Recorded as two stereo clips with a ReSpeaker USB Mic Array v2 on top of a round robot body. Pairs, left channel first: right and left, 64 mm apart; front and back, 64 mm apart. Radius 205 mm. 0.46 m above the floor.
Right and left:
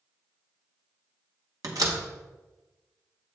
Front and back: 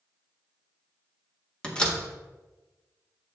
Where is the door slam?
75° left, 1.6 m.